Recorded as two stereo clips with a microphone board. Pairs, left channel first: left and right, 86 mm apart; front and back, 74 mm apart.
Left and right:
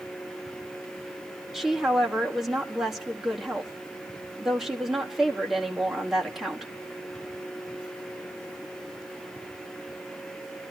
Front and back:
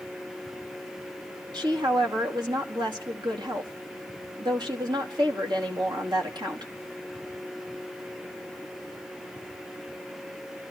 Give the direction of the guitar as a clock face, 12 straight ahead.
I don't hear a guitar.